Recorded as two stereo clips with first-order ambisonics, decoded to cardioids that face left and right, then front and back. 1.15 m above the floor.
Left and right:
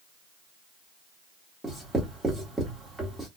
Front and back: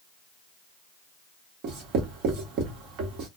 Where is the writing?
Straight behind, 1.0 m.